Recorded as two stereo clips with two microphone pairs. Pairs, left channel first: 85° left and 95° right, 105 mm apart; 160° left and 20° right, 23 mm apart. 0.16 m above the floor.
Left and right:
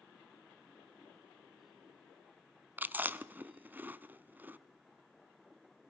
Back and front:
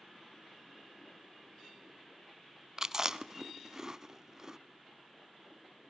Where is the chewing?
40° right, 0.6 m.